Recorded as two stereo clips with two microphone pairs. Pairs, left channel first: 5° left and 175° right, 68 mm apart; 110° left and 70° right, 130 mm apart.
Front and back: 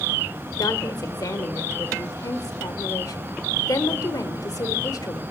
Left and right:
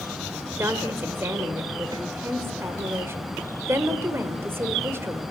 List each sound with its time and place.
0.6 s a woman speaking: straight ahead, 1.7 m